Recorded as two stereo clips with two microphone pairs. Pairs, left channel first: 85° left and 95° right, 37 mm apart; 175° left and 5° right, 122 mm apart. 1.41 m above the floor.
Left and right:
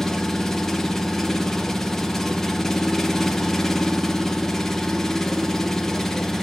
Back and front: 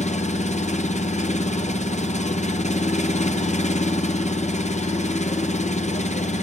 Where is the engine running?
165° left, 0.9 m.